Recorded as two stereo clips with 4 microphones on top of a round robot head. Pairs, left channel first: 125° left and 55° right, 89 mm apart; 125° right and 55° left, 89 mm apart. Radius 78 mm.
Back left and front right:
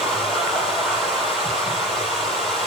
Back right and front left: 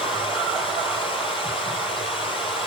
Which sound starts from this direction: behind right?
Running water, at 0.0 s.